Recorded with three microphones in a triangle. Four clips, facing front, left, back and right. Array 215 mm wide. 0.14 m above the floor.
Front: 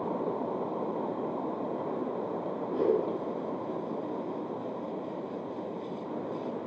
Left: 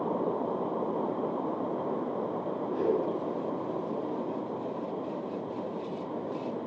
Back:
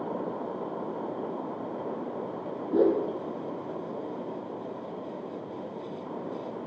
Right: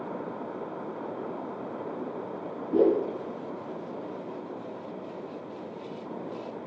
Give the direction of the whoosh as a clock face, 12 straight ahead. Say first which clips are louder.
Right 6 dB, back 4 dB; 4 o'clock.